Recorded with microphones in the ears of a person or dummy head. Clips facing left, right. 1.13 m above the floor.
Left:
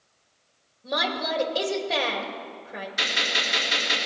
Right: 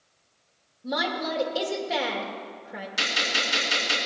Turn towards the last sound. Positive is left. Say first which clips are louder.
# right 1 dB
turn(degrees=-70)  # may be behind; listen again after turning